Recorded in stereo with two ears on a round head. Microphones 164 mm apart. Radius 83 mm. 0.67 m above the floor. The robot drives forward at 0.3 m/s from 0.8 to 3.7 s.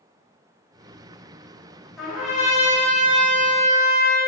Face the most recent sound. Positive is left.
turn(degrees=0)  # may be behind; listen again after turning